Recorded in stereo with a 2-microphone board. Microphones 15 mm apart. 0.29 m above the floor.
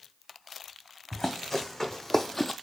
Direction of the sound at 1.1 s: 25° left (ahead or behind).